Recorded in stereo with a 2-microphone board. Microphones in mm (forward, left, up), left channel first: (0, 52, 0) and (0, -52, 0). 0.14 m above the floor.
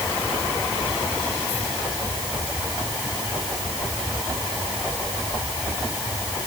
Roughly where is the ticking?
I don't hear ticking.